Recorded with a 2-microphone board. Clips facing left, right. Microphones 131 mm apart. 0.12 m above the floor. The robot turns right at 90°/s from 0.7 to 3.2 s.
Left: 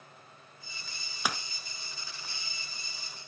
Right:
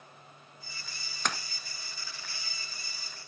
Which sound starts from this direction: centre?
A splash, at 1.2 s.